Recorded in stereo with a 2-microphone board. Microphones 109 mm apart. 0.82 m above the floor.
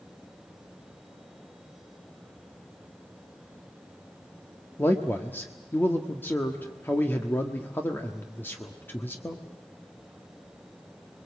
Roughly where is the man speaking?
Centre.